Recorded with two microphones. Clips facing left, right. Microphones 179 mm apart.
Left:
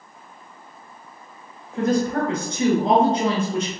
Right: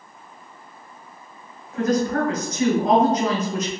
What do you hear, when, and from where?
1.7 s a woman speaking: 30° left (ahead or behind), 1.3 m